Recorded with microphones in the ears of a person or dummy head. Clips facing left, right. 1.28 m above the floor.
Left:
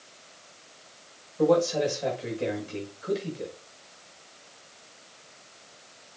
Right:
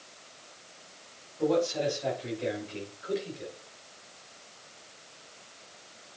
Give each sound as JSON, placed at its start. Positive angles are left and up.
{"t": 1.4, "sound": "a man speaking", "side_deg": 70, "distance_m": 7.0}